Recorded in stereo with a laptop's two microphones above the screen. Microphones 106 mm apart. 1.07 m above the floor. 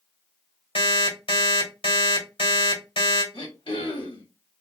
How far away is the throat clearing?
About 1.2 m.